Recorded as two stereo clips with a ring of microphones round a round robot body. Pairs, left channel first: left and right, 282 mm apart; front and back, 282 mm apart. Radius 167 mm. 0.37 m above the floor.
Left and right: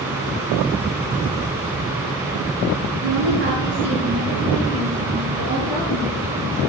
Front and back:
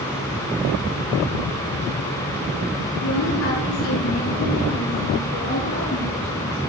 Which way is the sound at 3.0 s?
35° right.